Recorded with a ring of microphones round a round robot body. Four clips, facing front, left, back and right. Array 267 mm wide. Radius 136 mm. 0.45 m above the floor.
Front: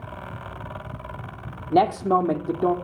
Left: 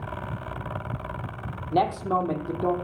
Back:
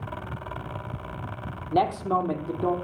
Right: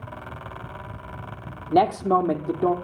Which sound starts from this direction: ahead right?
A man speaking, at 1.7 s.